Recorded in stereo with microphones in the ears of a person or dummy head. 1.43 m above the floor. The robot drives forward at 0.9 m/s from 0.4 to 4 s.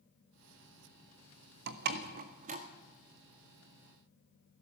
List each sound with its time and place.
1.7 s a door slam: 60° right (ahead or behind), 1.5 m; by 2.6 s 40° right (ahead or behind), 2 m